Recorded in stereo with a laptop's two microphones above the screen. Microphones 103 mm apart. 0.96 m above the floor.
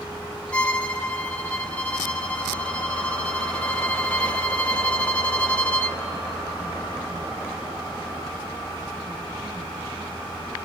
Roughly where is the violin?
Centre.